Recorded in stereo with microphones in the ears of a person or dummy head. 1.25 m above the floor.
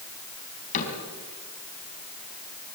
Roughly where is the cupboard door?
Left.